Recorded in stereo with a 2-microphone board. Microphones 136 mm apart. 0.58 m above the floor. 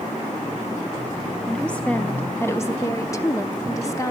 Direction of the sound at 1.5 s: 5° left (ahead or behind).